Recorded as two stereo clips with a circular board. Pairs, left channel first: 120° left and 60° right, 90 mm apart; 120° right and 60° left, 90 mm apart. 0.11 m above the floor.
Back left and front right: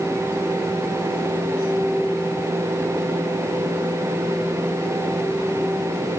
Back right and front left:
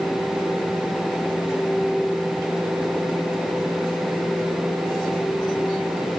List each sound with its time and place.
Only background noise.